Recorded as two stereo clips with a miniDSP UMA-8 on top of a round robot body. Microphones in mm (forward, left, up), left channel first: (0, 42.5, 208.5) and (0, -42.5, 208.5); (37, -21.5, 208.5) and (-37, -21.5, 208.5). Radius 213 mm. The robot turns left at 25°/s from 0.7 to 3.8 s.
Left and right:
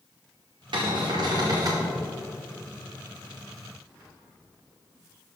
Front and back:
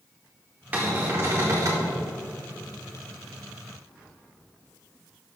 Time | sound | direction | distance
0.7 | a cupboard door | 115° right | 0.8 m